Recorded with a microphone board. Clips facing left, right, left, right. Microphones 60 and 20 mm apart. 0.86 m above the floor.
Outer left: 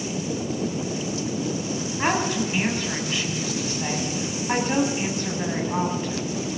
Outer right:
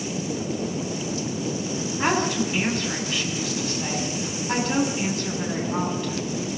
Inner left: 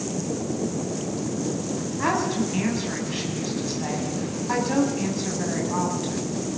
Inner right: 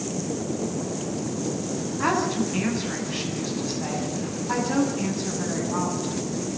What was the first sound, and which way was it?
A woman speaking, 10° left (ahead or behind).